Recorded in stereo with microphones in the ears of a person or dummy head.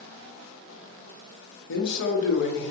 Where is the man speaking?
65° left (ahead or behind), 1.0 m.